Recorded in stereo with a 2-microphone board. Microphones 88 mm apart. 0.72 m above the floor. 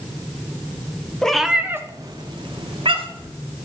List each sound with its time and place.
1.2 s a cat meowing: 10° left (ahead or behind), 0.6 m; by 3.3 s 80° right, 1.1 m